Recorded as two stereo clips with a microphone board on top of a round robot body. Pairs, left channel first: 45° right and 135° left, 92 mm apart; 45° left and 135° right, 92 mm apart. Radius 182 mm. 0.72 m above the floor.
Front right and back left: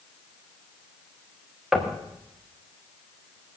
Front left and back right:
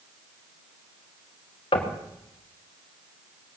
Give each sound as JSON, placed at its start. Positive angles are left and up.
{"t": 1.7, "sound": "knocking", "azimuth_deg": 50, "distance_m": 2.0}